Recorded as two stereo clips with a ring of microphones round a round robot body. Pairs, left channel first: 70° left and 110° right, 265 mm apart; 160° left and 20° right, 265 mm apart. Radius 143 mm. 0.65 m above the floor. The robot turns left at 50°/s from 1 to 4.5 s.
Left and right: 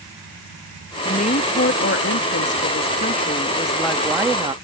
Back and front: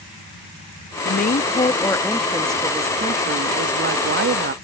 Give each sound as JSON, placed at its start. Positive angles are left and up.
{"t": 1.1, "sound": "a woman speaking", "azimuth_deg": 125}